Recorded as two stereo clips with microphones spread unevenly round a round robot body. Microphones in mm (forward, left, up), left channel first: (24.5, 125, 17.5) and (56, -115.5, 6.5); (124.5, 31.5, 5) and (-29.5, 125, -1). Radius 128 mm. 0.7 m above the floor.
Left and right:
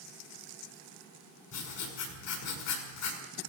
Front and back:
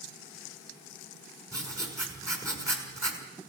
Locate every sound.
1.5 s writing: 75° left, 6 m